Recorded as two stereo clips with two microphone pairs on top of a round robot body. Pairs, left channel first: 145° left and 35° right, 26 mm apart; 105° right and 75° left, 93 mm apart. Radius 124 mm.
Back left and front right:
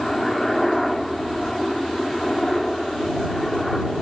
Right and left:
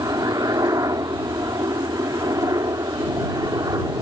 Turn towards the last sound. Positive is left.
turn(degrees=70)